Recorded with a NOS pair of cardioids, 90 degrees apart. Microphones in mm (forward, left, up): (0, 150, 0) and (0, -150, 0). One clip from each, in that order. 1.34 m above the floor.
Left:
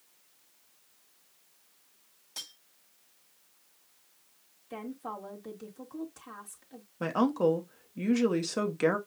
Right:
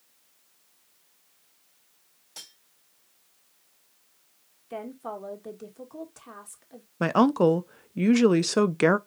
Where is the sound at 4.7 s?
15° right, 1.9 m.